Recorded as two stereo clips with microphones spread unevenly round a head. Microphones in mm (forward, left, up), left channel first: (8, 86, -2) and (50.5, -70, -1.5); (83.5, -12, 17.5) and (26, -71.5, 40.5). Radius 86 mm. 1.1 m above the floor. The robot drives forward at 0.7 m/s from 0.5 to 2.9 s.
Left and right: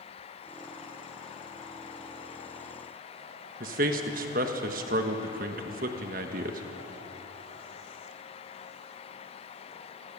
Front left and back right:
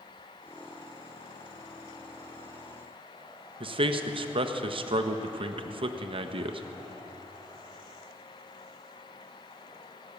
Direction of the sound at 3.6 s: 115° right.